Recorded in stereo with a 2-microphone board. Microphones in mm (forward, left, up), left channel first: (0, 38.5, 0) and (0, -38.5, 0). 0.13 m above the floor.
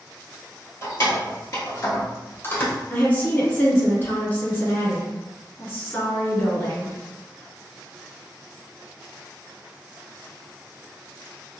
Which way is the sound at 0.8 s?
40° left (ahead or behind).